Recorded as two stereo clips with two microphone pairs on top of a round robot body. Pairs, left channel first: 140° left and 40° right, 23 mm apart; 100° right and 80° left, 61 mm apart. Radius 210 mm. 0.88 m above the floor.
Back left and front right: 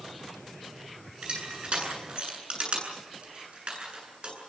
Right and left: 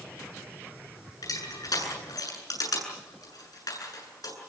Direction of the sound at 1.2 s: 85° right.